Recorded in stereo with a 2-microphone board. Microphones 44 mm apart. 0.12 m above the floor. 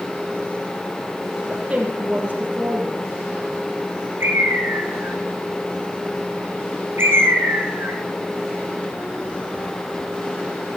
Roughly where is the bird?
Right.